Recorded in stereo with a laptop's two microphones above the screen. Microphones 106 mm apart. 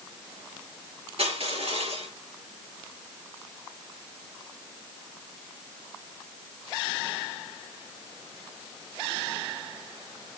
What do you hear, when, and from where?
1.2 s crushing: 65° right (ahead or behind), 6.5 m